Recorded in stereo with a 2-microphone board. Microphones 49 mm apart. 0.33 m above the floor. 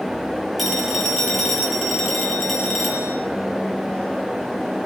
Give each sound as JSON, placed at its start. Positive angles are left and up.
{"t": 0.6, "sound": "a phone ringing", "side_deg": 0, "distance_m": 5.5}